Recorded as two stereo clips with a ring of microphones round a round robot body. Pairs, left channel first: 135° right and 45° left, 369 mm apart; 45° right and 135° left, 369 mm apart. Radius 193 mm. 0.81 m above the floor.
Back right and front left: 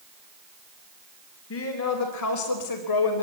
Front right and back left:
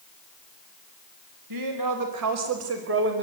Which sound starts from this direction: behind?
A woman speaking, at 1.5 s.